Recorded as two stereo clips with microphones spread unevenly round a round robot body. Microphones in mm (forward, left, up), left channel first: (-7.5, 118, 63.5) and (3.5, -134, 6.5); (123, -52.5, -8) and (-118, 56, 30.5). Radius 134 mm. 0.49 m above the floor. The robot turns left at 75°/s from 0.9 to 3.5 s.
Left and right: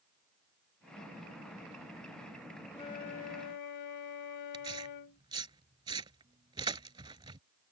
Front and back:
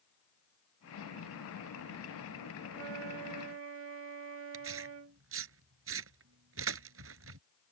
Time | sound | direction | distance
2.7 | a flute | 170° left | ?
4.5 | tearing paper | 160° right | ?